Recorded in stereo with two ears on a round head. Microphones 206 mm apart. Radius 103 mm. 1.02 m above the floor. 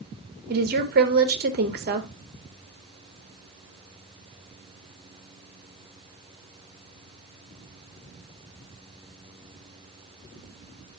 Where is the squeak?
I don't hear a squeak.